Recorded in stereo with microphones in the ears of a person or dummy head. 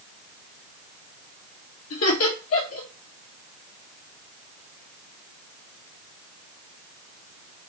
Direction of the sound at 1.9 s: 70° left (ahead or behind).